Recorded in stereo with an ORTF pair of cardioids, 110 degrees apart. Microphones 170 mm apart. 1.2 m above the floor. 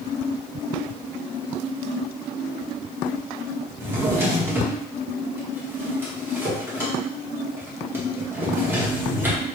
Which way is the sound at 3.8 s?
15° right.